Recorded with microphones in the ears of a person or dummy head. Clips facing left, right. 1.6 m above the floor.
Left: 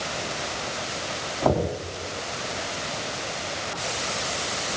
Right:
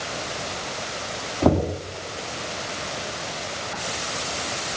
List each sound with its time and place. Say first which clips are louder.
1.4 s knocking: right 3 dB; 45° right (ahead or behind), 2 m